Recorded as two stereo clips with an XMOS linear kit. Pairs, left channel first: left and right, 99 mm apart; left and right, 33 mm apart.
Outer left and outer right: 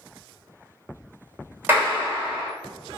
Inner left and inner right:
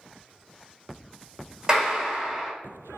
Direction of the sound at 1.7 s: 20° right (ahead or behind).